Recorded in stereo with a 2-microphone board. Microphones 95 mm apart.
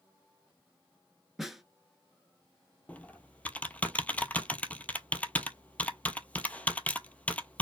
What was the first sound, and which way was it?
A snare drum, 5° right (ahead or behind).